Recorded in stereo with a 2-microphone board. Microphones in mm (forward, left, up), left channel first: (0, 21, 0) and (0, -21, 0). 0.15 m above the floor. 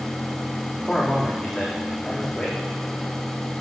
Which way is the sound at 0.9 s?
Centre (ahead or behind).